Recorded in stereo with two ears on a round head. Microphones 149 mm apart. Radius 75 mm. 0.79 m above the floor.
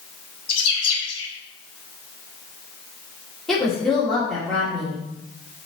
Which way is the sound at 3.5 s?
Centre (ahead or behind).